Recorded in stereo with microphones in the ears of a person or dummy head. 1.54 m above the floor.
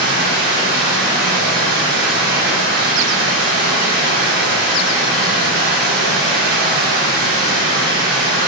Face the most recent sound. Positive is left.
turn(degrees=-50)  # may be behind; listen again after turning